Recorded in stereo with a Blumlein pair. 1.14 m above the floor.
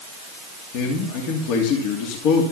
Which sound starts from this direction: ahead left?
A man speaking, at 0.7 s.